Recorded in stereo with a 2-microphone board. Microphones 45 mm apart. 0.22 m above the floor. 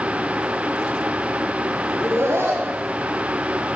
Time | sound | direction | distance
1.9 | laughter | 65° right (ahead or behind) | 6.5 m